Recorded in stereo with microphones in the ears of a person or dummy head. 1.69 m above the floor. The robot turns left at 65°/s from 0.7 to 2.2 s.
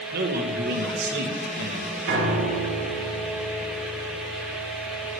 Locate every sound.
0.1 s a man speaking: 60° right, 1.9 m; by 2.0 s 145° right, 1.9 m
2.1 s a piano: 55° right (ahead or behind), 2 m